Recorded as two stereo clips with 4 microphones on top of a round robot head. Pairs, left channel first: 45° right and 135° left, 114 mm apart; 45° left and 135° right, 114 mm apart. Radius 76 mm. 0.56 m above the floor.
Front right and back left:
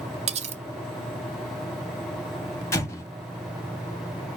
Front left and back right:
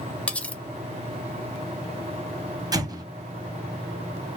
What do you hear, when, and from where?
0.3 s cutlery clinking: 120° left, 0.7 m
2.7 s an explosion: 100° right, 1.4 m